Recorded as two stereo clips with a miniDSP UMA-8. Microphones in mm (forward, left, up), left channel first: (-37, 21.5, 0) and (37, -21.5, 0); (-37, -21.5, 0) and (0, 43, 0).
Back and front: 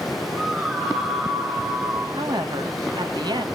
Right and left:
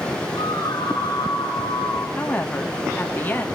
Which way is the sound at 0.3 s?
105° right.